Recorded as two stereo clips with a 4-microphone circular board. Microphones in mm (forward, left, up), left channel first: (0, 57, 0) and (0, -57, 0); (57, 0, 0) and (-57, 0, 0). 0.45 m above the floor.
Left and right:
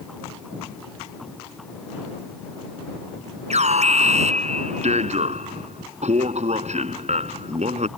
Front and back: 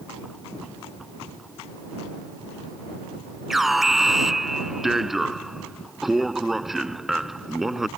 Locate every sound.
3.5 s an alarm: 95° right